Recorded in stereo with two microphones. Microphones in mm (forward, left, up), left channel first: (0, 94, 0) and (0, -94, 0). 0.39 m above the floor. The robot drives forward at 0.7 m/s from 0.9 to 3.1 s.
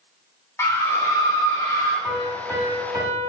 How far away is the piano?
About 1.3 m.